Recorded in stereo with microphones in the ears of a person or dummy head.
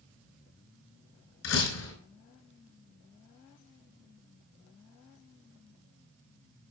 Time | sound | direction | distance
1.4 | a door slam | 80° left | 5 m